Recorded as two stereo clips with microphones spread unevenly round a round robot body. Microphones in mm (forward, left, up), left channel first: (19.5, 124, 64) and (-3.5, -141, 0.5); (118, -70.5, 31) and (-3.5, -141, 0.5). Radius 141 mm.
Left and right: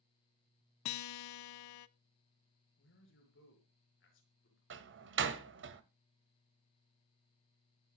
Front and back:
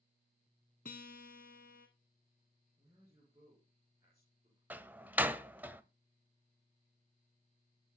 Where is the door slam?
80° right, 0.9 m.